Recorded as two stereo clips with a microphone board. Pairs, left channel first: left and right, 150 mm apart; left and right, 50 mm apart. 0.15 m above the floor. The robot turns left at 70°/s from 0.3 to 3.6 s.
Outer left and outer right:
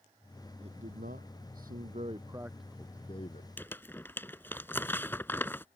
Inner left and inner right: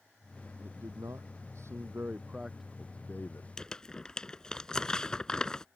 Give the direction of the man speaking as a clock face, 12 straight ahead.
1 o'clock.